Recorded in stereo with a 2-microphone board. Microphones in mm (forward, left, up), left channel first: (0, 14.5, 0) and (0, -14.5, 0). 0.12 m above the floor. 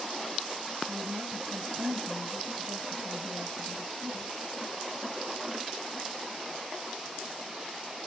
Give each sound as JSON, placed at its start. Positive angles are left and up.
{"t": 0.9, "sound": "a woman speaking", "side_deg": -55, "distance_m": 2.0}